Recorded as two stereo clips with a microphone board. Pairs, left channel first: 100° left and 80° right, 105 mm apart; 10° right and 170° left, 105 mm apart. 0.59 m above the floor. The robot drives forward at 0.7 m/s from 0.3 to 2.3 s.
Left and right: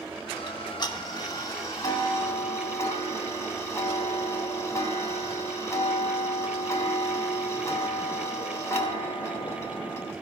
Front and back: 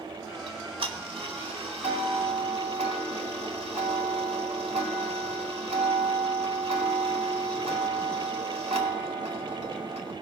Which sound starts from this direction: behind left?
Ticking, at 0.5 s.